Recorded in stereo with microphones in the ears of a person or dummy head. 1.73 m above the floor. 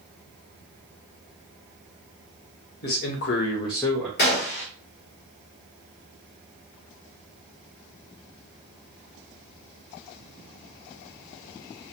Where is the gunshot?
45° left (ahead or behind), 0.9 m.